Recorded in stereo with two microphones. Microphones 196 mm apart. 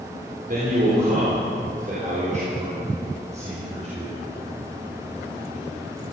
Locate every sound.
0.5 s a man speaking: 50° right (ahead or behind), 3.5 m; by 4.2 s 35° right (ahead or behind), 5 m